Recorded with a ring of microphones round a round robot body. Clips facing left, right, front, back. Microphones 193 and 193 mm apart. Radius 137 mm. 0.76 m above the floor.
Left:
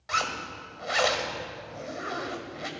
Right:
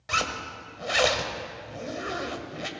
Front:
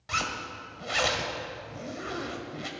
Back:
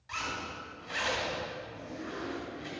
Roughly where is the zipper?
Ahead right.